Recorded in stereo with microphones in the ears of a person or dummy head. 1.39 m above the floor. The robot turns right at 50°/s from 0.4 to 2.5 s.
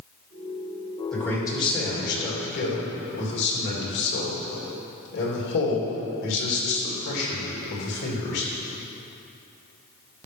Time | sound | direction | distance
1.1 | a man speaking | 5° left | 2.5 m